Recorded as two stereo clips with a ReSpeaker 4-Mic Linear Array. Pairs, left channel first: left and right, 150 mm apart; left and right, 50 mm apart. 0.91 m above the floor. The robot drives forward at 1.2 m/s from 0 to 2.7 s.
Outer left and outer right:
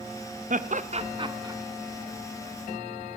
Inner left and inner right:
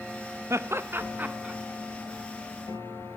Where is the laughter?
60° right (ahead or behind), 0.6 m; by 1.6 s 25° right (ahead or behind), 1.3 m.